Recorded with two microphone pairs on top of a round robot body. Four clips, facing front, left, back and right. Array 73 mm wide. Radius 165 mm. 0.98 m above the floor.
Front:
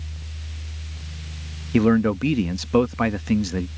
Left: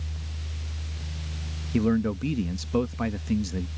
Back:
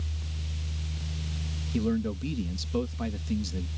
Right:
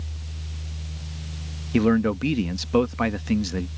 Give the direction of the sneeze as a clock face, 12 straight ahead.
No sneeze in this recording.